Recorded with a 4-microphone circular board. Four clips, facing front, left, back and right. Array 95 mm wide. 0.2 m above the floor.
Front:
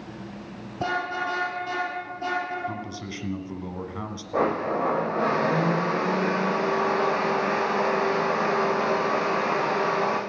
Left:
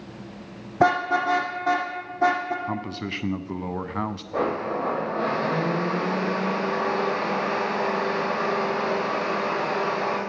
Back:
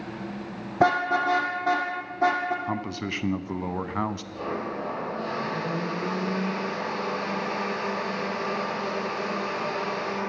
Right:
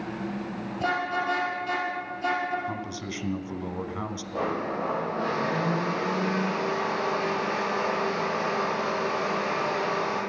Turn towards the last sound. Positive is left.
turn(degrees=30)